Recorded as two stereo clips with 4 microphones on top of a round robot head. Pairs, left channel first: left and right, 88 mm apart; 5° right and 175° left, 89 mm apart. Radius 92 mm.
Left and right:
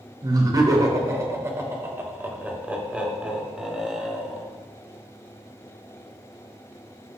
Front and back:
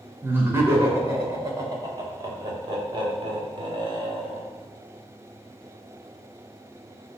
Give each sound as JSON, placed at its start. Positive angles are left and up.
{"t": 0.2, "sound": "laughter", "azimuth_deg": -125, "distance_m": 2.0}